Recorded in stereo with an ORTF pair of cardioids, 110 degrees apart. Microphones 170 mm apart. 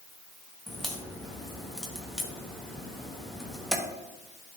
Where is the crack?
5° left, 1.1 m.